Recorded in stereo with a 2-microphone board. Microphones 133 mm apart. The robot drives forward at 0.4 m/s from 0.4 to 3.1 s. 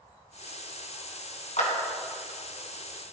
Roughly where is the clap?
Left.